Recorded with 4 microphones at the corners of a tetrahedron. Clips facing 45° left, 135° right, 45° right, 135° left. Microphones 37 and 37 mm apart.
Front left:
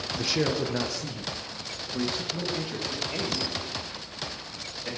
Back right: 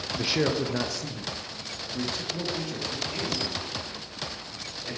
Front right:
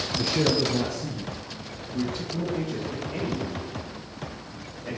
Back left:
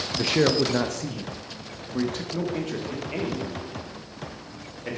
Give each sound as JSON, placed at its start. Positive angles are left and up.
{"t": 0.2, "sound": "a man speaking", "azimuth_deg": 150, "distance_m": 0.6}